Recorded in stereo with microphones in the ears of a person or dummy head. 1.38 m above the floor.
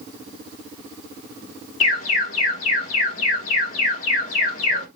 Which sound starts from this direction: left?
An alarm, at 1.8 s.